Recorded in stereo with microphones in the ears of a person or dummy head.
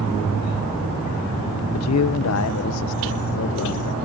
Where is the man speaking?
75° left (ahead or behind); by 4.0 s 65° left (ahead or behind).